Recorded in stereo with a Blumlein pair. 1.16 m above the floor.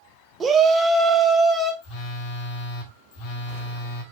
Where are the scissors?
I don't hear scissors.